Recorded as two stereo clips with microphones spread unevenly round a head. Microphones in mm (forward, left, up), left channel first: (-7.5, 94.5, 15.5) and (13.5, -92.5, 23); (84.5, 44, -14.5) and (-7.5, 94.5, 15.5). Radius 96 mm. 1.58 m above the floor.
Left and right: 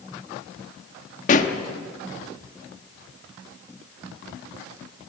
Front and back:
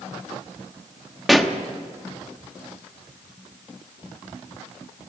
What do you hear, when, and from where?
1.3 s a pop: 90° left, 1.1 m